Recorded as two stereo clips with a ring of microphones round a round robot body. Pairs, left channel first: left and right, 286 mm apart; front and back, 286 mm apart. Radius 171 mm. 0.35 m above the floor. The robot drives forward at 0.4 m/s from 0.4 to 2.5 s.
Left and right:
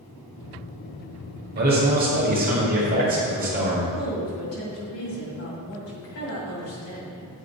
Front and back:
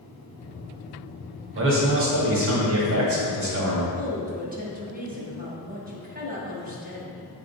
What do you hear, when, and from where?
1.6 s a man speaking: 140° right, 1.8 m; by 3.8 s 145° right, 2 m
3.9 s a woman speaking: 125° left, 2 m